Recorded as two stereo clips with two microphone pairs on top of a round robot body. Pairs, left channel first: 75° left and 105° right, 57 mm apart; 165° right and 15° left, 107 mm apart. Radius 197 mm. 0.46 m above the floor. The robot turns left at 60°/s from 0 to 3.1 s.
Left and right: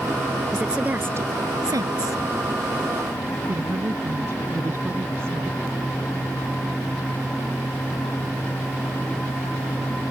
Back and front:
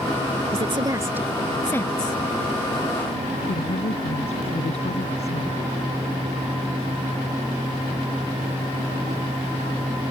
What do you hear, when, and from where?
0.5 s a woman speaking: 20° right; by 2.2 s 120° right
3.5 s a woman speaking: 150° right